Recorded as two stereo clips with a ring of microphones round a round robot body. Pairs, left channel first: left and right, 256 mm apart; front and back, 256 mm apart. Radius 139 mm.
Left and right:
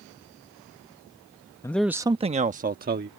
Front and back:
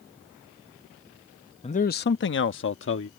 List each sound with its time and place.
1.6 s a man speaking: 30° left; by 3.1 s 40° right